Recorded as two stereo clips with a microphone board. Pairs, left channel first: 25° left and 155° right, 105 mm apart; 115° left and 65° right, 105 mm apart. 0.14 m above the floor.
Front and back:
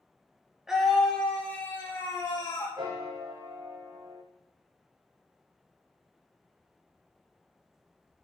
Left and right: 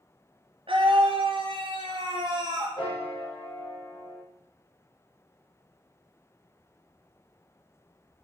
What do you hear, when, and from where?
0.7 s a scream: 70° right, 2.5 m; by 2.7 s 30° right, 3.5 m
2.8 s a piano: 145° left, 5.5 m